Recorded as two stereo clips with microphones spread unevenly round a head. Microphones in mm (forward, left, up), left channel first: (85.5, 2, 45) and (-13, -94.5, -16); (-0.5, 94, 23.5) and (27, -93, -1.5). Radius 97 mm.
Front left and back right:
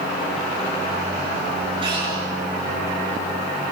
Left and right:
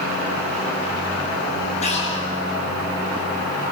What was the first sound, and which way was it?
Breathing, 155° left.